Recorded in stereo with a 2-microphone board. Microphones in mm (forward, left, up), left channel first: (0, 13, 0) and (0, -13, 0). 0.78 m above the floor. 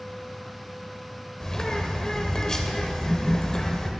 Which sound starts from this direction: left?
A bird, at 1.4 s.